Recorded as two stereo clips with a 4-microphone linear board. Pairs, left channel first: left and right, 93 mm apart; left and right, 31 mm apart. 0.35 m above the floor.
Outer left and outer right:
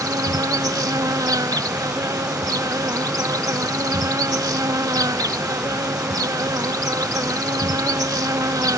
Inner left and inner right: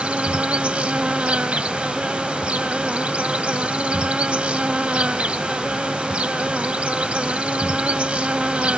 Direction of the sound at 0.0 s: 40° right (ahead or behind).